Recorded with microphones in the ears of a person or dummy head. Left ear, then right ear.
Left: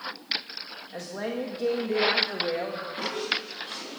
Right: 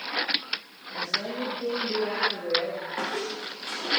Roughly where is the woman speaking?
Left.